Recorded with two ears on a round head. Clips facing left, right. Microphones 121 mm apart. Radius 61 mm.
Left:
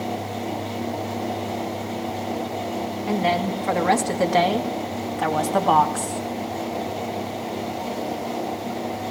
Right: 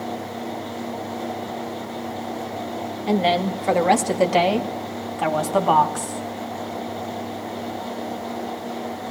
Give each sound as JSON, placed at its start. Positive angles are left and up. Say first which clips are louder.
{"t": 3.1, "sound": "a woman speaking", "louder": "right 3 dB", "side_deg": -35, "distance_m": 2.0}